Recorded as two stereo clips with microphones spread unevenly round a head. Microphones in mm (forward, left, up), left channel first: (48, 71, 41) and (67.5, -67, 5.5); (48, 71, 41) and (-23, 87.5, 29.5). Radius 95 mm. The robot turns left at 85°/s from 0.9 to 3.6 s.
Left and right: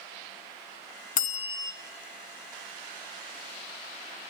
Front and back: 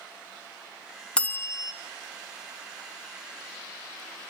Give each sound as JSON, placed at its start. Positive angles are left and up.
{"t": 1.2, "sound": "a bell", "azimuth_deg": 70, "distance_m": 0.8}